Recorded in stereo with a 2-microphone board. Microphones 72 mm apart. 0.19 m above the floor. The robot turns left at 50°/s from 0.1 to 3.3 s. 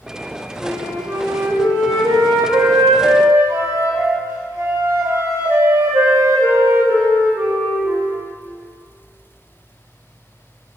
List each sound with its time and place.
0.6 s a flute: 10° right, 4 m; by 8.2 s 145° right, 4 m